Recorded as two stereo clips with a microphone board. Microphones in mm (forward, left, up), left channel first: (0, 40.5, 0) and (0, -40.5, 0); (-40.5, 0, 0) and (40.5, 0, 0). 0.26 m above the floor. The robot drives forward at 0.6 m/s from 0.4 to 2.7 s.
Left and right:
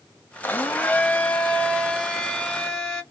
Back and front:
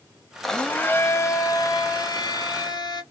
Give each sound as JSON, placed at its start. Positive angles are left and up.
{"t": 0.4, "sound": "a blender", "azimuth_deg": 100, "distance_m": 0.6}